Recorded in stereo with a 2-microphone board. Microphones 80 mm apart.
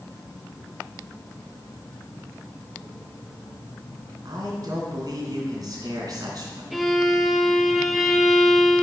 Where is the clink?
I don't hear a clink.